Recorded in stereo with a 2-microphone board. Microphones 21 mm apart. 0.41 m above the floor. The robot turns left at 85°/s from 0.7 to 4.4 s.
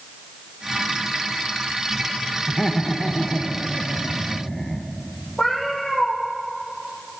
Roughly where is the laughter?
Centre.